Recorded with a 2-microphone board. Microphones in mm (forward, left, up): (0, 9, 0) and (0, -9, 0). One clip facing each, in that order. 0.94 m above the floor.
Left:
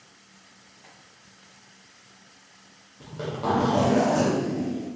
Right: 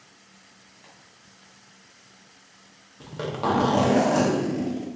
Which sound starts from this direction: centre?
Tapping, at 0.8 s.